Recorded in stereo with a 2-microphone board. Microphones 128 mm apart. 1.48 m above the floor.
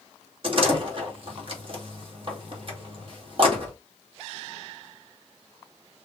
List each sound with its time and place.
0.4 s a door slam: 40° right (ahead or behind), 2 m